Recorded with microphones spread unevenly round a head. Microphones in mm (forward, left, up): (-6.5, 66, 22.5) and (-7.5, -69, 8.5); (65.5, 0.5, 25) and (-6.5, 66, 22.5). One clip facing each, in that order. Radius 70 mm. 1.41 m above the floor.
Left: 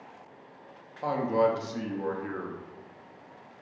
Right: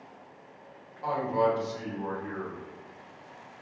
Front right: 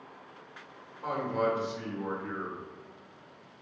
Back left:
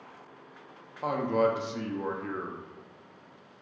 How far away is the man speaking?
About 0.6 m.